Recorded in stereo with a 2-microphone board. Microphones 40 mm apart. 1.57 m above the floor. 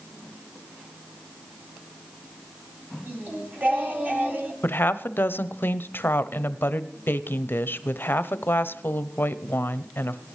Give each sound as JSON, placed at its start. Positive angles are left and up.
{"t": 3.1, "sound": "singing", "side_deg": -40, "distance_m": 1.9}
{"t": 4.6, "sound": "a woman speaking", "side_deg": 60, "distance_m": 0.7}